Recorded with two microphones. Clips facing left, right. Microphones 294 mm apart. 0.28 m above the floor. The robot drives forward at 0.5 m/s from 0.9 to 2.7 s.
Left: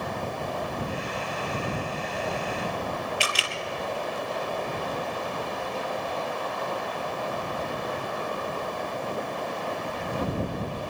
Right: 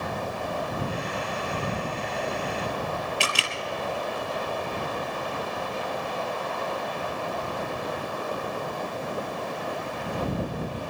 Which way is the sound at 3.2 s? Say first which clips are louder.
Right 1 dB; 60° right (ahead or behind).